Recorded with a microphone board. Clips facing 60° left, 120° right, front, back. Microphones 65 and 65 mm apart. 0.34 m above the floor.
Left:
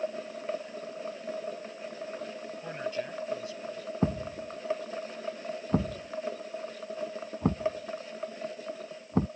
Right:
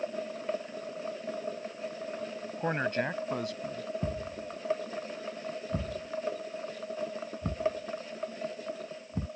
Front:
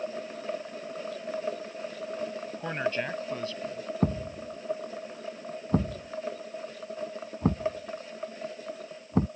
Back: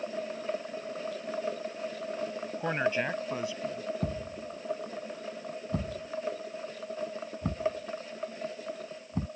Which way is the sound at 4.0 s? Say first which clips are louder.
Left 4 dB, front 5 dB; 40° left.